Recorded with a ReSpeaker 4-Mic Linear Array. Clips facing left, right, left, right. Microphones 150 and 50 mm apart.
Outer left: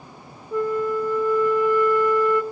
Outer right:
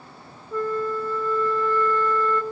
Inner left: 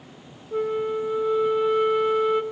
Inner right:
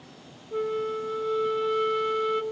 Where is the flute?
15° left (ahead or behind), 0.5 m.